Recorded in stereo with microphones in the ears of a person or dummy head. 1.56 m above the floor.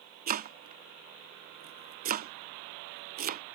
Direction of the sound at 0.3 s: 45° right (ahead or behind).